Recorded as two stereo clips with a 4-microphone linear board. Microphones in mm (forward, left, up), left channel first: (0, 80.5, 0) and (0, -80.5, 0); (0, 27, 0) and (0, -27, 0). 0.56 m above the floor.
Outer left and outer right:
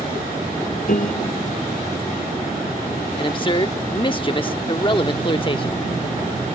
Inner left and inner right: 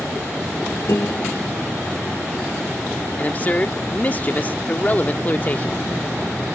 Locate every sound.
0.9 s a piano: 60° left (ahead or behind)
3.2 s a man speaking: 30° left (ahead or behind)